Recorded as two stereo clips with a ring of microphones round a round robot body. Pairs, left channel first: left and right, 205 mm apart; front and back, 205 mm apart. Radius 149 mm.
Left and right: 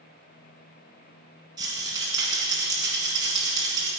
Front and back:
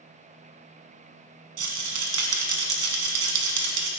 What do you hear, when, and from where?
1.6 s a rattle: 165° right, 1.3 m